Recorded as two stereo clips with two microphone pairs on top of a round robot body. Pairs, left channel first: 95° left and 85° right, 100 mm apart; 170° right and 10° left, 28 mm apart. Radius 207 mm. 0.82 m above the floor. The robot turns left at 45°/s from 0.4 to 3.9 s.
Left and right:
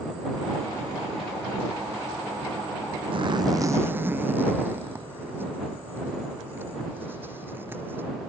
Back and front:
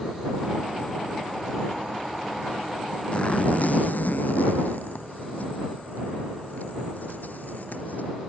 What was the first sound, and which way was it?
A zipper, 120° right.